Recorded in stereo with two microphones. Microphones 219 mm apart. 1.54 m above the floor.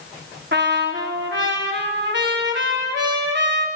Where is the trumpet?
55° right (ahead or behind), 4 m.